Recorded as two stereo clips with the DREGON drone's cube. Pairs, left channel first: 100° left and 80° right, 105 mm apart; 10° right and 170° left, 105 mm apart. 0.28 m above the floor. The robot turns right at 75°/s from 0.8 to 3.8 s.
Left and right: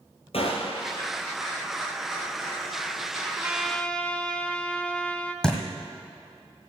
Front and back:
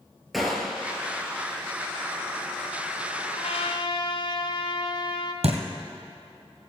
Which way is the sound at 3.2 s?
20° right.